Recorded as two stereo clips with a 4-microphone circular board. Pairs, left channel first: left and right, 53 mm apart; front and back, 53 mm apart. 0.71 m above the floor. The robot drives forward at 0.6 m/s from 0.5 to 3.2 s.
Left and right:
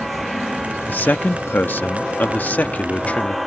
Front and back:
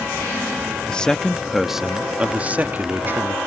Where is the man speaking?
60° left; by 3.4 s 145° left.